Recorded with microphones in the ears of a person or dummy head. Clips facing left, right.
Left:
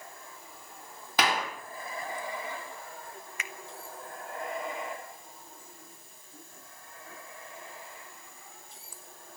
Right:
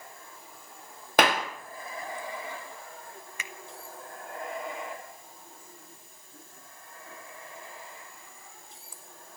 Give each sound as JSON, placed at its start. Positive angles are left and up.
{"t": 1.2, "sound": "a clap", "side_deg": -45, "distance_m": 1.7}
{"t": 3.4, "sound": "a finger snap", "side_deg": -80, "distance_m": 1.1}